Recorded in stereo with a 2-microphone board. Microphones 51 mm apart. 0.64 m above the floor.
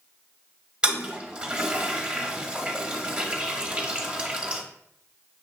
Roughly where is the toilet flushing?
Centre.